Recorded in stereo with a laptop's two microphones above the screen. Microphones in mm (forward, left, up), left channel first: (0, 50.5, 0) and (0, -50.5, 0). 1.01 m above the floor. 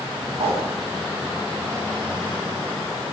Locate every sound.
0.4 s a whoosh: 80° right, 8 m